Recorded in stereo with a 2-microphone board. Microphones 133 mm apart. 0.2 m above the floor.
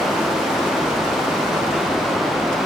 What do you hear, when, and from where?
Only background noise.